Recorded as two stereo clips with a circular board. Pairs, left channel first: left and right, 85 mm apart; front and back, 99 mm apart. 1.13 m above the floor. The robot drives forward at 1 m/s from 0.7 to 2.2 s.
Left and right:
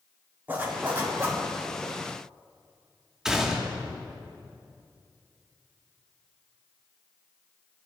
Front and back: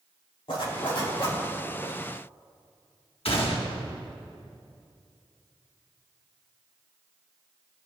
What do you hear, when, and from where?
0.5 s a zipper: 25° right, 3 m; by 1.4 s 30° right, 2 m
3.2 s a gunshot: 5° right, 1.2 m